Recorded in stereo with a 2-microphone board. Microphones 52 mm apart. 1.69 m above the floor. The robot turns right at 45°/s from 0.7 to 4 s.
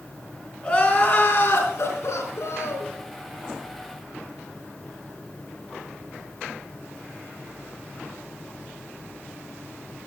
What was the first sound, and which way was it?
Crying, 30° left.